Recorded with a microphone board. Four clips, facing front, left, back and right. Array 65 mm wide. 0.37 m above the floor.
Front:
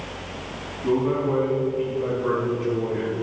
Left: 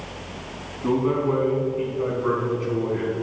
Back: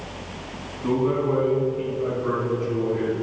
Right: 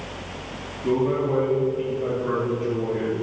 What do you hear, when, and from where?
0.8 s a man speaking: 110° left, 3 m; by 3.1 s 75° left, 3 m